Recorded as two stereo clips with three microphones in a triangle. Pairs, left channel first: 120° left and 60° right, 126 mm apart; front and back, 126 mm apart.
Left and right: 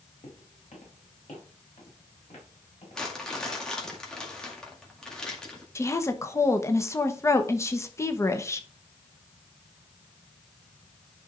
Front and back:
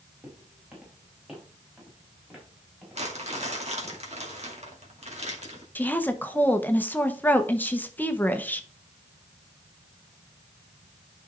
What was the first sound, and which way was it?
Footsteps, 100° left.